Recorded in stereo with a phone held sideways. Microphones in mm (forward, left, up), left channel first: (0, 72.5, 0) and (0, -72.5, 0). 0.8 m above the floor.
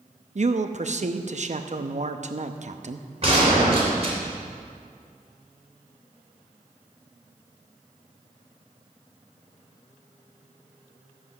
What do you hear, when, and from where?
0.3 s a man speaking: 55° right (ahead or behind), 0.7 m
3.2 s a gunshot: 45° right (ahead or behind), 3 m